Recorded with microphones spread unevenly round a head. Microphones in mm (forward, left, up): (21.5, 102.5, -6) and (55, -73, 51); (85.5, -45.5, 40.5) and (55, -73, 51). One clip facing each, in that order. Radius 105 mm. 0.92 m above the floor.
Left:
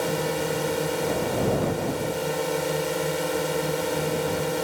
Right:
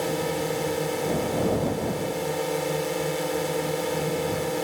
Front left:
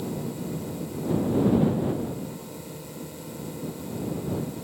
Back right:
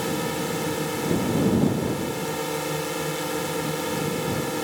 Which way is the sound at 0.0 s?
170° right.